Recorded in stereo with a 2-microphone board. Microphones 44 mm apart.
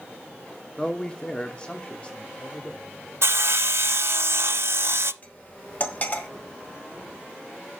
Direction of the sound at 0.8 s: 10° left (ahead or behind).